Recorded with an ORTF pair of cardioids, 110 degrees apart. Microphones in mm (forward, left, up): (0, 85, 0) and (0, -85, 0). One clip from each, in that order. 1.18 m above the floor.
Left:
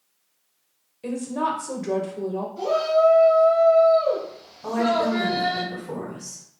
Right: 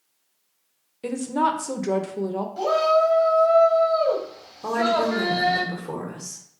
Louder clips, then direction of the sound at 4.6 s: Right 1 dB; 50° right.